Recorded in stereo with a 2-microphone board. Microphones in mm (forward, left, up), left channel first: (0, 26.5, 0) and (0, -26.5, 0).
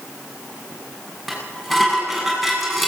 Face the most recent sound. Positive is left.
turn(degrees=0)  # may be behind; listen again after turning